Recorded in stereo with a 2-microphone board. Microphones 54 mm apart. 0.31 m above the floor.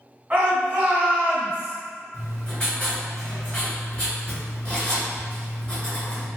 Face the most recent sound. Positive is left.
turn(degrees=30)  # may be behind; listen again after turning